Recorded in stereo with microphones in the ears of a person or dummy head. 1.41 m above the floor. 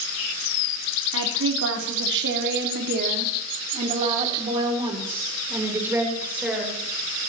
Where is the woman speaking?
80° right, 3 m; by 6.8 s 5° right (ahead or behind), 4.5 m.